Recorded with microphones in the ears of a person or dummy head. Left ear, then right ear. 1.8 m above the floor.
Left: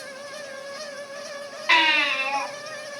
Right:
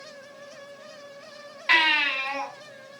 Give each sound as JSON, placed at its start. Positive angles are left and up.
{"t": 1.7, "sound": "a baby crying", "side_deg": -15, "distance_m": 5.0}